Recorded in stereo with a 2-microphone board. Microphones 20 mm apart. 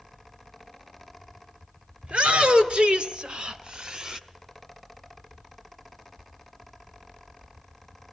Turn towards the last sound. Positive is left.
turn(degrees=-30)  # may be behind; listen again after turning